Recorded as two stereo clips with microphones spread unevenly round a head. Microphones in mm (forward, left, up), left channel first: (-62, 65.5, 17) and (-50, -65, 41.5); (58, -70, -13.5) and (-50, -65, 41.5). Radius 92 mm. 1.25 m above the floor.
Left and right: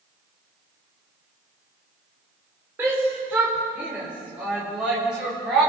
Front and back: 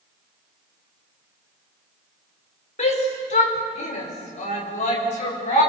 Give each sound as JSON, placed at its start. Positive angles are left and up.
{"t": 2.8, "sound": "a shout", "azimuth_deg": -5, "distance_m": 5.0}